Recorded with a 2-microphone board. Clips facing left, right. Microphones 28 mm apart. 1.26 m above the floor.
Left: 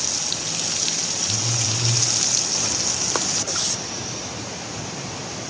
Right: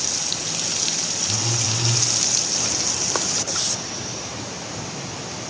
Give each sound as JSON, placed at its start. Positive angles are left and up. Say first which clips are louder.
{"t": 1.3, "sound": "a phone buzzing", "louder": "right 1 dB", "side_deg": -35, "distance_m": 7.5}